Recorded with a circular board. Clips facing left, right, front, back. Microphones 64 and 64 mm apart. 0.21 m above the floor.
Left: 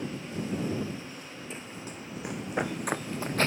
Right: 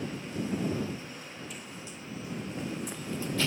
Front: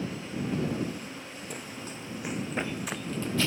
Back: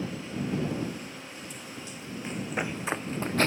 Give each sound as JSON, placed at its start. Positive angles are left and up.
{"t": 1.5, "sound": "running footsteps", "azimuth_deg": 30}